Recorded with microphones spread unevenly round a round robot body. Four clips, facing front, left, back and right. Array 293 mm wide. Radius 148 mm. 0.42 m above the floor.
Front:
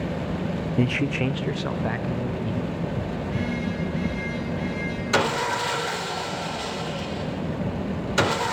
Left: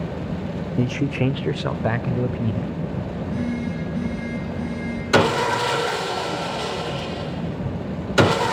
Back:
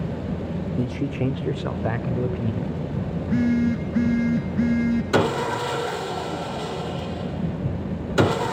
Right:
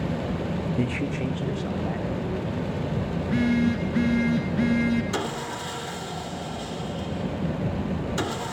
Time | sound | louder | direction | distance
0.8 | a man speaking | left 8 dB, front 2 dB | 60° left | 0.8 m
3.2 | a phone buzzing | right 4 dB, back 12 dB | 160° right | 2 m
5.1 | sawing | left 11 dB, front 2 dB | 120° left | 1.0 m